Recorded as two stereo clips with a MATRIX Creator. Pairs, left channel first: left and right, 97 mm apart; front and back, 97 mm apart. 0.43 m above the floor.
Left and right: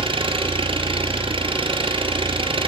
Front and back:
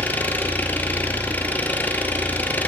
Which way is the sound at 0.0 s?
70° right.